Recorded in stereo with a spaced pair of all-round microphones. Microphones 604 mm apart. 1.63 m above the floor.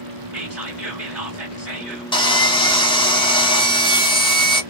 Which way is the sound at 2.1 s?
10° left (ahead or behind).